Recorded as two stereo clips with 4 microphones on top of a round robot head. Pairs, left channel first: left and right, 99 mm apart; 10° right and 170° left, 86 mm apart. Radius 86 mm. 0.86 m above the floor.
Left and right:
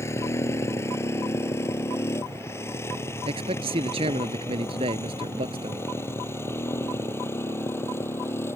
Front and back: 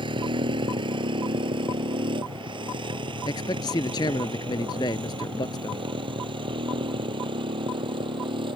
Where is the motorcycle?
150° left; by 8.6 s 155° left.